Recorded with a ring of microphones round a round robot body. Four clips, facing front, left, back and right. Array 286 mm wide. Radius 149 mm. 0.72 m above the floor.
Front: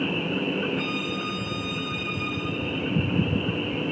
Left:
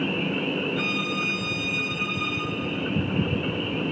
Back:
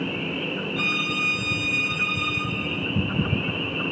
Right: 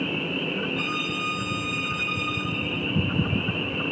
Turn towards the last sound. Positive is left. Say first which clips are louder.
# left 2 dB, back 1 dB
turn(degrees=175)